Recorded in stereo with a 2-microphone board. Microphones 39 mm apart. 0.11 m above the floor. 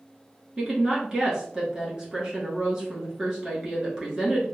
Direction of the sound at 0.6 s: 20° right (ahead or behind).